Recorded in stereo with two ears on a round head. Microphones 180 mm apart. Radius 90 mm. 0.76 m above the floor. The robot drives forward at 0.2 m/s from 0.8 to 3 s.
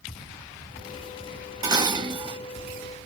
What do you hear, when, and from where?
1.6 s dishes clattering: 20° right (ahead or behind), 0.6 m; by 2.4 s 25° right (ahead or behind), 0.5 m